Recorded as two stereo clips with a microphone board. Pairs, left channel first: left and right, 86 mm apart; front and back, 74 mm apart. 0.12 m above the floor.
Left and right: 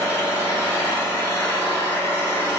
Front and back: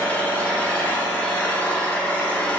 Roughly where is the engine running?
Ahead left.